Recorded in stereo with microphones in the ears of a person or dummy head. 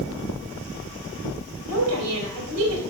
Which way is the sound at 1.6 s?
85° right.